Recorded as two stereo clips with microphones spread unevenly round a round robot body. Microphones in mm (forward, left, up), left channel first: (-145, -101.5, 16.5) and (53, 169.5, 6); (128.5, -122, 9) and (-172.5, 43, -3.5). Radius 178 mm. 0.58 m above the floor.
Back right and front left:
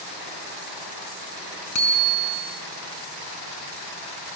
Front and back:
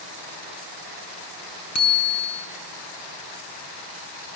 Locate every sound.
1.8 s a bicycle bell: 75° right, 4.5 m